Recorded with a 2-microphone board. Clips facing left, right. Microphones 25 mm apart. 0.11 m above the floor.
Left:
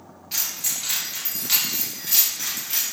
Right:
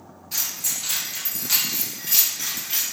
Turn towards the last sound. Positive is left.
turn(degrees=-10)  # may be behind; listen again after turning